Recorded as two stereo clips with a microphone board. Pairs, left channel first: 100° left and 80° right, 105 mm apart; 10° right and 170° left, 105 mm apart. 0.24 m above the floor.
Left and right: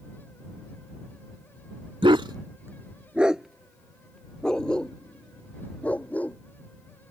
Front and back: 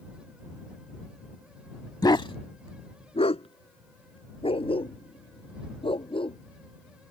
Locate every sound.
2.0 s a dog barking: 60° right; by 6.4 s 25° left